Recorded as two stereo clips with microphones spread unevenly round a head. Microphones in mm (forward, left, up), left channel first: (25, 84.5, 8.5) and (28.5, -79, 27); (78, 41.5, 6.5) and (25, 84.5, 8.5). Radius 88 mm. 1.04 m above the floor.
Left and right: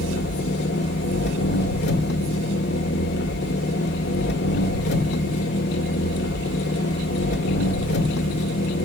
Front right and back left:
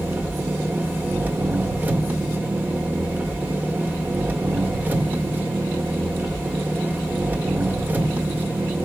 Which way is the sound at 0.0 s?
80° left.